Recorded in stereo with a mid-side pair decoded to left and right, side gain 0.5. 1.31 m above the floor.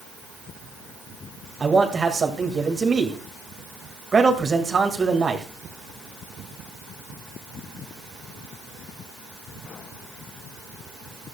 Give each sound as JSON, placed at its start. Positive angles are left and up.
{"t": 1.6, "sound": "a man speaking", "azimuth_deg": -30, "distance_m": 1.9}